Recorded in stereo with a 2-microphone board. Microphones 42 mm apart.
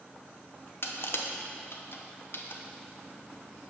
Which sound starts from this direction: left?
Crushing, at 0.8 s.